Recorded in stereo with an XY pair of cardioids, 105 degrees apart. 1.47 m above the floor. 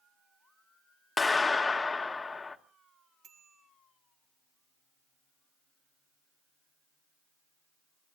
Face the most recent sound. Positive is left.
turn(degrees=-55)